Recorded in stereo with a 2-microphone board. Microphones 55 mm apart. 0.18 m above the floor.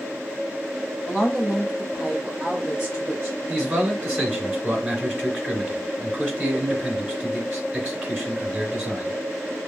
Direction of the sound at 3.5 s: 15° right (ahead or behind).